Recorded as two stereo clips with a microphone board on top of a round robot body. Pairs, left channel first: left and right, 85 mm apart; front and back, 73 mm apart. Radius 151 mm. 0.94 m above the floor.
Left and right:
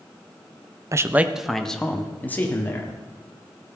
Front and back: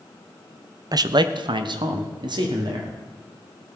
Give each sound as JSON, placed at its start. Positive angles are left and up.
{"t": 0.9, "sound": "a man speaking", "azimuth_deg": -145, "distance_m": 0.6}